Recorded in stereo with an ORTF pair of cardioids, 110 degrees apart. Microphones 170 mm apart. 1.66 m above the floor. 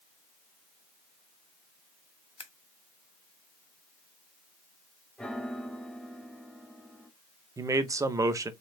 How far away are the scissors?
About 1.2 m.